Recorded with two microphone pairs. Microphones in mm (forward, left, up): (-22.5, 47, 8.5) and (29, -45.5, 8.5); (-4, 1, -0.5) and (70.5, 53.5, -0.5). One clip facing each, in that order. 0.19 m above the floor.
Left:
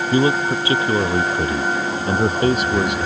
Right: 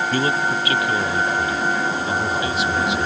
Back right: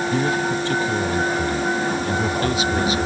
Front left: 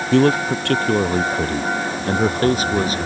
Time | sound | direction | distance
0.1 | a man speaking | 50° left | ?